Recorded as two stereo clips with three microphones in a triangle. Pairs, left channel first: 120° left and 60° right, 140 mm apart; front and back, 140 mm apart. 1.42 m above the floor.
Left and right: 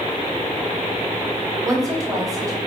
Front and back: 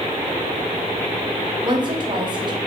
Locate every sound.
1.6 s a woman speaking: 125° right, 0.7 m